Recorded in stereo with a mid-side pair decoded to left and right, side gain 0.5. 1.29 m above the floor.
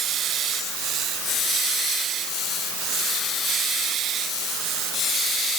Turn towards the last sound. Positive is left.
No sound to turn to.